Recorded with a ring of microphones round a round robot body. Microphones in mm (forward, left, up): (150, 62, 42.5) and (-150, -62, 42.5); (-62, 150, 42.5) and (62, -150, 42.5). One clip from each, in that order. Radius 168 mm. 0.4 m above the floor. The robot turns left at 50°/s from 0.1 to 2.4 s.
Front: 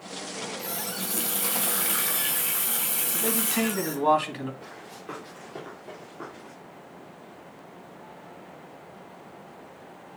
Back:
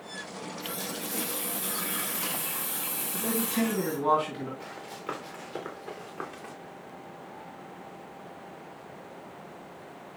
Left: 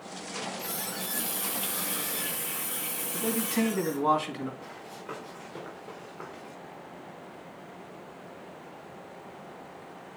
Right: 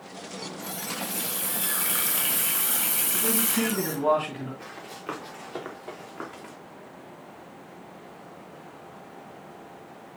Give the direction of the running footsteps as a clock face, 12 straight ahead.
4 o'clock.